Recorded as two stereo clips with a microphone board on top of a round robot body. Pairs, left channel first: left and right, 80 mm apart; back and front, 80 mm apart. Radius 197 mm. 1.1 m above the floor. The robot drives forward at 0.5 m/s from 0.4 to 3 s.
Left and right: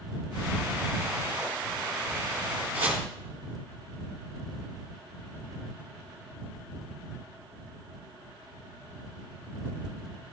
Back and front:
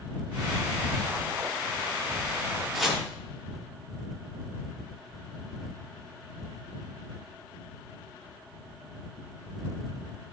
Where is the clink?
I don't hear a clink.